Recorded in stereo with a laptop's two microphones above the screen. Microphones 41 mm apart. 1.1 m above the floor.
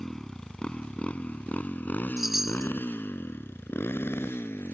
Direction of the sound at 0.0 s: 10° left (ahead or behind).